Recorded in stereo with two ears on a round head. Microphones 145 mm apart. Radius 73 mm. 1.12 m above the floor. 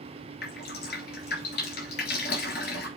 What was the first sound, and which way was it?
Dripping, 65° left (ahead or behind).